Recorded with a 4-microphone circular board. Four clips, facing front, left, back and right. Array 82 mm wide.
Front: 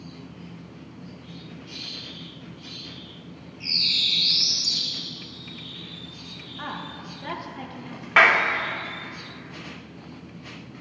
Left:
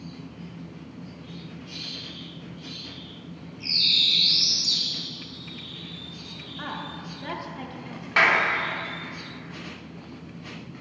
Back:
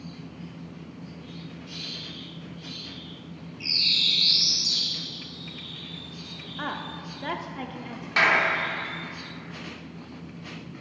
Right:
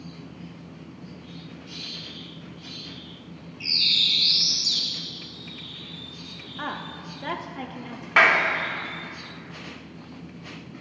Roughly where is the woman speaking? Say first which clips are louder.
Right 2 dB, back 2 dB; behind right.